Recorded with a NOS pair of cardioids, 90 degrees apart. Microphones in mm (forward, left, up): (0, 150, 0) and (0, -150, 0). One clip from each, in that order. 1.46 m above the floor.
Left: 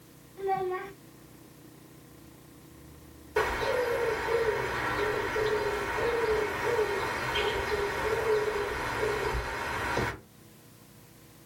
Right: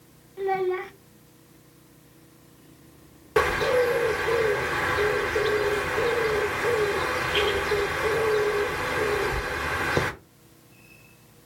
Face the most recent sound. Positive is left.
turn(degrees=-65)